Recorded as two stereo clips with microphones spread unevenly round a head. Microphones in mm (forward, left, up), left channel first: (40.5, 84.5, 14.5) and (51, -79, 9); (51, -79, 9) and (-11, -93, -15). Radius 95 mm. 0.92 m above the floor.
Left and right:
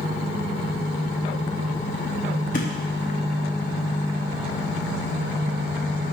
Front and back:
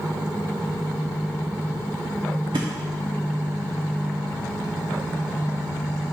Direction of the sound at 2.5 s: 145° left.